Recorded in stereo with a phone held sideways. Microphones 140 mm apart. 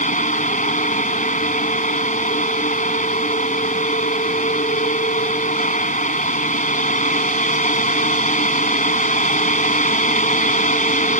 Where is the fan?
65° left (ahead or behind).